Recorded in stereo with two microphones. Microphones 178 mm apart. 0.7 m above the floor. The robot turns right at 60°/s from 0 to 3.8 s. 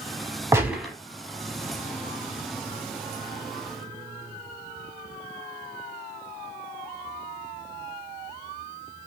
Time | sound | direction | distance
0.5 | a gunshot | 15° right (ahead or behind) | 0.9 m